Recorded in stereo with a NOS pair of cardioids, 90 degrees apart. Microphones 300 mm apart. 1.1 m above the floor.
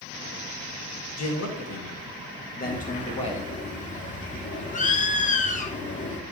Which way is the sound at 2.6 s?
25° left.